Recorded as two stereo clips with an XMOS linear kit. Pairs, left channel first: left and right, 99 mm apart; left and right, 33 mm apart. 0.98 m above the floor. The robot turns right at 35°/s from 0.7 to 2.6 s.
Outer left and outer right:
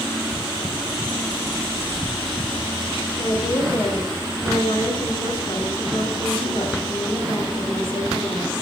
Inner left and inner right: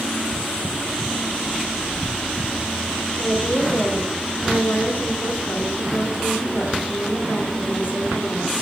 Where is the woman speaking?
55° left (ahead or behind), 3 m.